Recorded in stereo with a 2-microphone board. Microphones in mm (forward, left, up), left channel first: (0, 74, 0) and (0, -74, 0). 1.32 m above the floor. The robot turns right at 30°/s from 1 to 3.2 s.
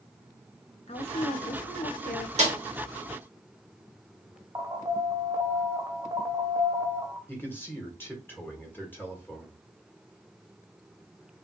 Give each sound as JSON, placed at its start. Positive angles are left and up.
{"t": 0.9, "sound": "a woman speaking", "azimuth_deg": 50, "distance_m": 0.8}
{"t": 2.4, "sound": "a snare drum", "side_deg": -45, "distance_m": 1.8}
{"t": 4.5, "sound": "an alarm", "side_deg": -25, "distance_m": 0.8}
{"t": 7.3, "sound": "a man speaking", "side_deg": 15, "distance_m": 1.5}